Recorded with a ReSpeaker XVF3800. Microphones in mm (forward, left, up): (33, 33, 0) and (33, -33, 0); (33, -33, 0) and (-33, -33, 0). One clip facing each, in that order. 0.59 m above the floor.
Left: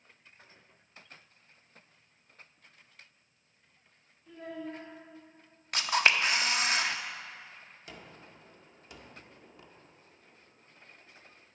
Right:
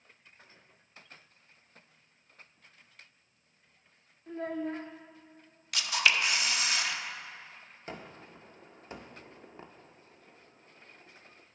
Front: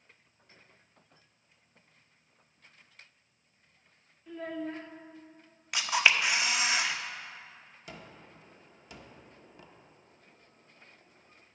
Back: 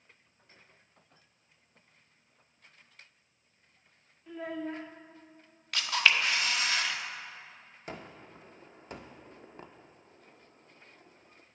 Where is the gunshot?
135° right, 0.6 m.